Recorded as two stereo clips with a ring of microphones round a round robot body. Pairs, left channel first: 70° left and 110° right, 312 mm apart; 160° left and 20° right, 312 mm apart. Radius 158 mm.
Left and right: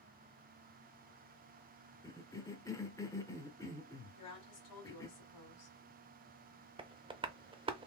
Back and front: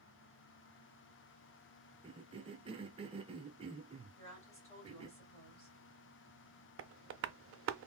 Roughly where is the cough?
Ahead.